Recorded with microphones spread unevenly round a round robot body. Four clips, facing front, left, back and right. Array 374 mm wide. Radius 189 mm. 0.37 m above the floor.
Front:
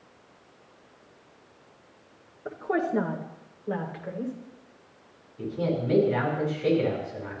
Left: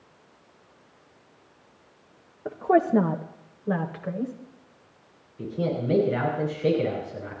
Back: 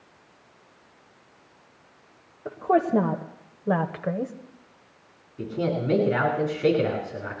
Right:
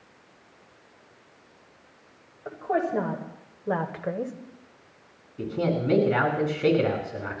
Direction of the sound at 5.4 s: 115° right.